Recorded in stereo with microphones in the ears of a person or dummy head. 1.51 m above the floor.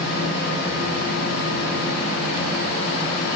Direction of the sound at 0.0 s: 50° left (ahead or behind).